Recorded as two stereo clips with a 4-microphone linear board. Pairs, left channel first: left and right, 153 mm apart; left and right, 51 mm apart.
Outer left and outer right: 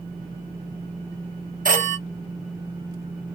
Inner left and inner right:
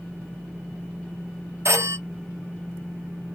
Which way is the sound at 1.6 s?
65° right (ahead or behind).